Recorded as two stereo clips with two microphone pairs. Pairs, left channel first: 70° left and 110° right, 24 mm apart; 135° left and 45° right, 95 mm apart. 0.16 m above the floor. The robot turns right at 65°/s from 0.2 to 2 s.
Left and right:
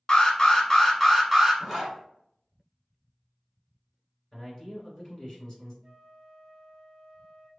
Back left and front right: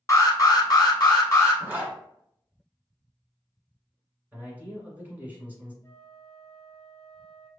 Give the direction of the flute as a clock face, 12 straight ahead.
6 o'clock.